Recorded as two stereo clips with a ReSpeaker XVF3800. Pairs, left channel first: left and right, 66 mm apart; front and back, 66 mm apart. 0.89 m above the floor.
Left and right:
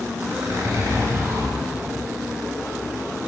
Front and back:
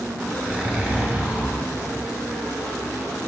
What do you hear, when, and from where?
0.2 s a zipper: 115° right, 1.6 m